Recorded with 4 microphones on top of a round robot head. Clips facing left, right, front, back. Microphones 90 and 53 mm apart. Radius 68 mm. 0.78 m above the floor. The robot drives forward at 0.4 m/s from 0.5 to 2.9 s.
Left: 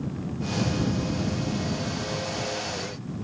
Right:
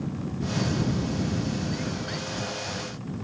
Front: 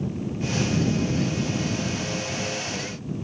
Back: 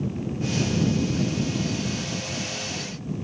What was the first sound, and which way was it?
Only background noise.